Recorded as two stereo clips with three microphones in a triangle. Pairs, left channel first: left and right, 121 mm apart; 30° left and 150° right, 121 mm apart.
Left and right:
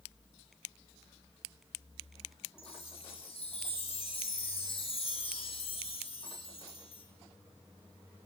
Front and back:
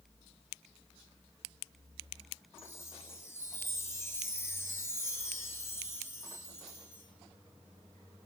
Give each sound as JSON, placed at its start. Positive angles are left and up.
{"t": 2.6, "sound": "a chime", "azimuth_deg": 90, "distance_m": 1.5}